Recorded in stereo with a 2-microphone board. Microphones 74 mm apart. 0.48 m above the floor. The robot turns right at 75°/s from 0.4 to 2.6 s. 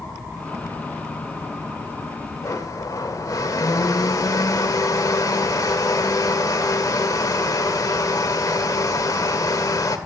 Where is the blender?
45° left (ahead or behind), 1.4 m; by 10.0 s 50° left (ahead or behind), 1.4 m.